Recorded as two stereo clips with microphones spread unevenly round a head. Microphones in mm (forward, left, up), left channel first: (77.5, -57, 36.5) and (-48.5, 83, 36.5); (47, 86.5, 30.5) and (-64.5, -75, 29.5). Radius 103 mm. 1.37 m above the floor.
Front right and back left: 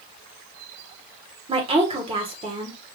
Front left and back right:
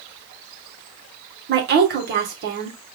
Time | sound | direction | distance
1.5 | a woman speaking | 165° right | 1.4 m